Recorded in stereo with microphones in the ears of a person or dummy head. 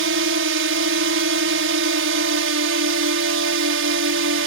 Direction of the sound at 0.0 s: 60° right (ahead or behind).